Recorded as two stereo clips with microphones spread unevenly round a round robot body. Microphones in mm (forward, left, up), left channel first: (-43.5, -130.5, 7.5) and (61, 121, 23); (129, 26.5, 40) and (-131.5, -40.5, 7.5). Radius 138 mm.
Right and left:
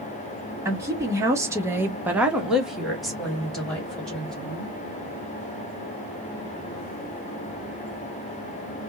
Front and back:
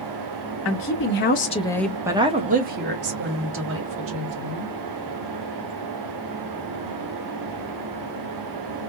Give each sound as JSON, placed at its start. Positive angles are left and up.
{"t": 0.7, "sound": "a woman speaking", "azimuth_deg": -15, "distance_m": 1.2}